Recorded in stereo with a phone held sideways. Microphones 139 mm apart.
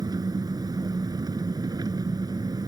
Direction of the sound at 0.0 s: 30° right (ahead or behind).